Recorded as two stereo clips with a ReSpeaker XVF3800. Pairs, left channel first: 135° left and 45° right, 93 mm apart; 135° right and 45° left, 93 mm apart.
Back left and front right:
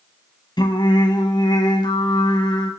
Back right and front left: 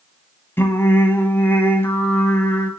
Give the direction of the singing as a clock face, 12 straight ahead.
7 o'clock.